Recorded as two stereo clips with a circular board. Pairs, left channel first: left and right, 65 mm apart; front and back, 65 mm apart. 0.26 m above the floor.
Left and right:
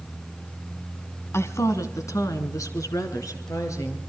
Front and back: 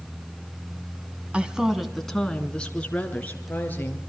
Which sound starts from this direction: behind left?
A woman speaking, at 1.3 s.